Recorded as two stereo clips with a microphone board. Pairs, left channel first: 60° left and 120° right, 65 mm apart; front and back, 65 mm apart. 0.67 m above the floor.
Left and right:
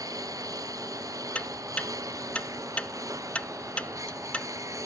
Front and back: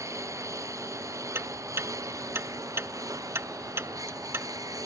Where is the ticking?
130° left.